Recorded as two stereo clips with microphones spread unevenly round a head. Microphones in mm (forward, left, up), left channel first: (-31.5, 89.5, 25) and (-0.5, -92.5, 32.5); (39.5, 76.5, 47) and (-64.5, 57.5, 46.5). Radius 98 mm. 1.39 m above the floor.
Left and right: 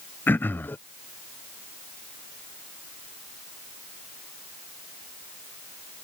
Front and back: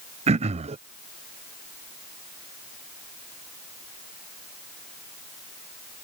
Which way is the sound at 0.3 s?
Straight behind.